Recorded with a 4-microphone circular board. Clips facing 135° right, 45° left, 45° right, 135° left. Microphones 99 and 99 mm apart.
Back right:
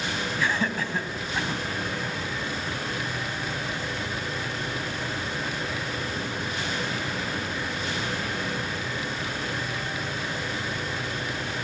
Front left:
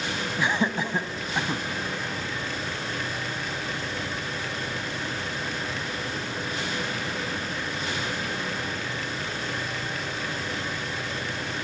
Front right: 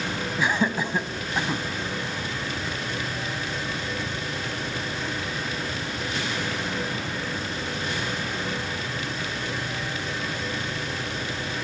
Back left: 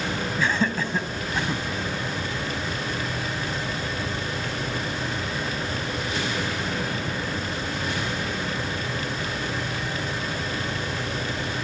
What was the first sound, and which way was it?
Laughter, 5° left.